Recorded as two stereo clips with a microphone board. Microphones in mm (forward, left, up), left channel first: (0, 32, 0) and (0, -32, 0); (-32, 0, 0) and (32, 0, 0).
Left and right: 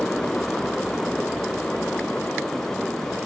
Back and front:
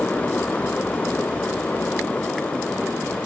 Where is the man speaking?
No man speaking in this recording.